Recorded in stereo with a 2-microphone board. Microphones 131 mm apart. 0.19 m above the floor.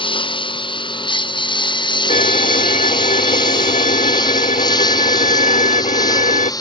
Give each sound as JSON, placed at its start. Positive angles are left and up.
{"t": 0.0, "sound": "a lawn mower", "side_deg": 40}
{"t": 2.1, "sound": "a violin", "side_deg": 70}